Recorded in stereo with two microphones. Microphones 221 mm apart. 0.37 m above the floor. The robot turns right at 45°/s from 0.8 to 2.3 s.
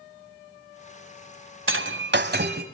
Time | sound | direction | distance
1.7 | breaking glass | 70° right (ahead or behind) | 1.6 m